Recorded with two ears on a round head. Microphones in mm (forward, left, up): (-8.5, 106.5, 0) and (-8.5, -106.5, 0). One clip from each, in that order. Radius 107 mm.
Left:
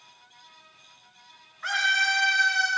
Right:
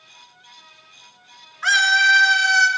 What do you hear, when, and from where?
1.6 s a scream: 60° right (ahead or behind), 3 m